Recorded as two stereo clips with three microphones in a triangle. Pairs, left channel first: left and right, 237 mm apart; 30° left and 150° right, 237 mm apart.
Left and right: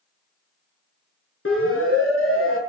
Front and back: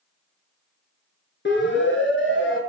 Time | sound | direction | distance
1.4 | a siren | 70° left | 5.5 m